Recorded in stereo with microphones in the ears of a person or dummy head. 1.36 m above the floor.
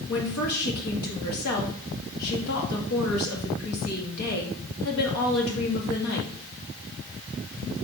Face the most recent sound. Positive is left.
turn(degrees=85)